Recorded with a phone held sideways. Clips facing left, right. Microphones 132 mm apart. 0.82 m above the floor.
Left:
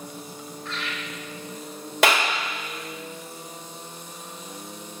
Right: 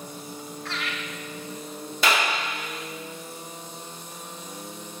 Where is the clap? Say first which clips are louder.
Left 3 dB; 75° left (ahead or behind), 3 m.